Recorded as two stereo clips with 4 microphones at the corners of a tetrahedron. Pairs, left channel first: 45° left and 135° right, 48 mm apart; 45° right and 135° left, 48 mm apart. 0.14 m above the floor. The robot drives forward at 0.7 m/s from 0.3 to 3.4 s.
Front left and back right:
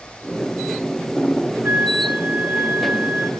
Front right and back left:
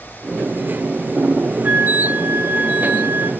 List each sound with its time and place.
1.6 s a flute: straight behind, 2.5 m